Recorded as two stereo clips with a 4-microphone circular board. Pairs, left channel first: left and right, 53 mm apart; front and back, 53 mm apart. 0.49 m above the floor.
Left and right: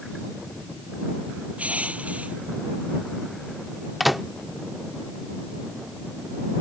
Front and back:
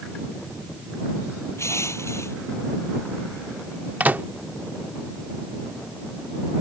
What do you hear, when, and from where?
1.6 s crushing: 25° right
4.0 s a microwave: 175° right